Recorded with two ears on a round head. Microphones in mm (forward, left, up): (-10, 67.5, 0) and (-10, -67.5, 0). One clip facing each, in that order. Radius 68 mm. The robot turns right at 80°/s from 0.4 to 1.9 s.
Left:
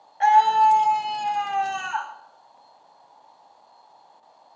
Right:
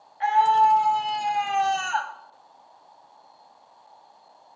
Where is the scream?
120° left, 0.9 m; by 2.1 s 120° right, 0.9 m.